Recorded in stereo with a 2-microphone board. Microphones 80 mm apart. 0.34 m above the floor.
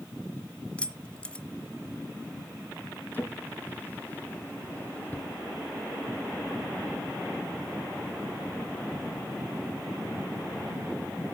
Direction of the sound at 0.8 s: 15° left (ahead or behind).